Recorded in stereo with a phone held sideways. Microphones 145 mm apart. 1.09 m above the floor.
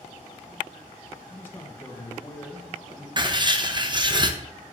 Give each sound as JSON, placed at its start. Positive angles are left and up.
{"t": 1.3, "sound": "a man speaking", "side_deg": 15, "distance_m": 1.1}
{"t": 3.2, "sound": "writing", "side_deg": -30, "distance_m": 0.6}